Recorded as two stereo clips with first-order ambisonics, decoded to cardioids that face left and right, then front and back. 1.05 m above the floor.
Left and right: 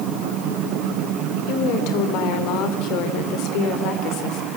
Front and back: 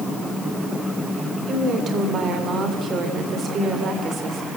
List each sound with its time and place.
1.5 s a woman speaking: 115° left, 3 m